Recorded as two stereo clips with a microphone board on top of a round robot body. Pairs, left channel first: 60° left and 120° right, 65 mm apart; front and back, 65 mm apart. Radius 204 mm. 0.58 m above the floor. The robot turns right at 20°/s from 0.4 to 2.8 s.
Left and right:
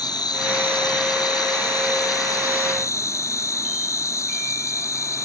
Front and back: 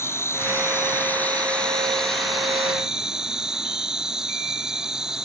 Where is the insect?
50° left; by 5.2 s 100° left.